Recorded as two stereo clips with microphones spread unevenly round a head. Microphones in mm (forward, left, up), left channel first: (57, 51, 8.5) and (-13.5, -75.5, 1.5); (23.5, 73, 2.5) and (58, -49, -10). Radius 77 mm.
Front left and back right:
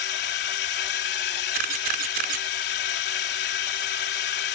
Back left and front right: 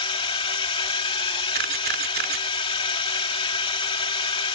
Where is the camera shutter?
95° right.